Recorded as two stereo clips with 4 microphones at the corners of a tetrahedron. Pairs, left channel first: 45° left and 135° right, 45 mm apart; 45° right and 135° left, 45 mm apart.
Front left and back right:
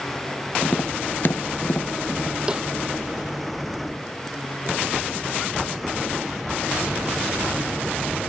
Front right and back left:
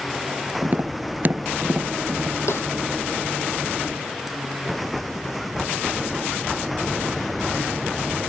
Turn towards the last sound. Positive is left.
turn(degrees=-65)